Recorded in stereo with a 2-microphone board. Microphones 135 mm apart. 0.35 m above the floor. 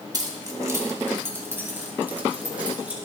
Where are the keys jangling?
30° right (ahead or behind), 1.2 m; by 3.0 s 10° right (ahead or behind), 2.5 m.